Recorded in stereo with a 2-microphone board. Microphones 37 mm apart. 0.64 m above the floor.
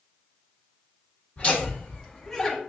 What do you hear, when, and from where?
1.4 s laughter: 25° left (ahead or behind), 1.1 m; by 2.6 s 5° left (ahead or behind), 1.0 m